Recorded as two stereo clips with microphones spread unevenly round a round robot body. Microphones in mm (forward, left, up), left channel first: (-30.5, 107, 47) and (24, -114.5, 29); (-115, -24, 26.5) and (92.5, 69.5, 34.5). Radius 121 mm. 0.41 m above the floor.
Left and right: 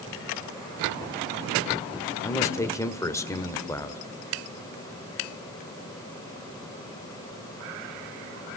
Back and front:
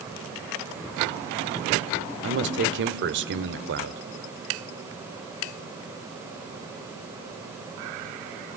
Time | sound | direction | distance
2.2 | a man speaking | 25° left | 1.8 m